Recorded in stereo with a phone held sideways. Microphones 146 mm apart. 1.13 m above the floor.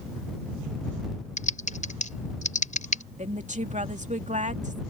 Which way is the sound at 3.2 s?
55° right (ahead or behind).